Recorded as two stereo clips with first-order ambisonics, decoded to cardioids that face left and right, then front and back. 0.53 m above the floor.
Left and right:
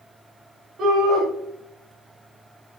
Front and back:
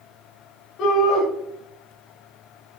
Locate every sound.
0.8 s a shout: 40° right, 2.5 m